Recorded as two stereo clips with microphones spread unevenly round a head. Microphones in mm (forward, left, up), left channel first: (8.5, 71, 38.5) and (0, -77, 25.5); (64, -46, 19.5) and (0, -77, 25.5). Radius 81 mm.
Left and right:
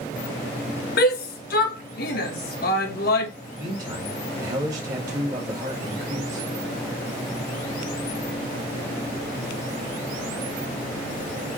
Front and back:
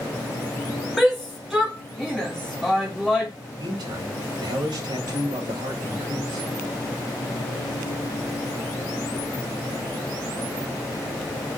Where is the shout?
115° left, 1.5 m.